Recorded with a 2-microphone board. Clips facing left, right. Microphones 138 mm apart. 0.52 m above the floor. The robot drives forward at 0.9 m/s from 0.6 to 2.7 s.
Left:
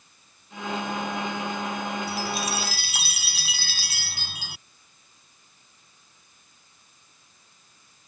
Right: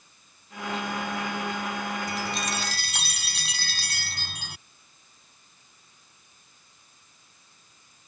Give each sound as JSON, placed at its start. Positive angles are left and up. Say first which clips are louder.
{"t": 2.1, "sound": "a chime", "louder": "left 2 dB", "side_deg": 5}